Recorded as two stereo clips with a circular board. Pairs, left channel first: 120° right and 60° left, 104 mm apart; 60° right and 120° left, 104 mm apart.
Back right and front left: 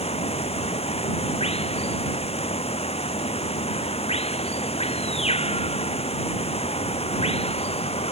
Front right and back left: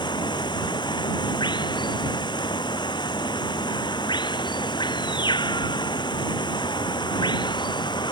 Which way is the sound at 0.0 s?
105° right.